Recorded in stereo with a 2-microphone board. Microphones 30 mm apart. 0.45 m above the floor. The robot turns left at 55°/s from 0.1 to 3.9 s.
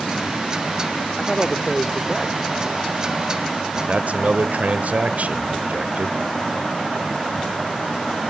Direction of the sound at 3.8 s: 60° right (ahead or behind).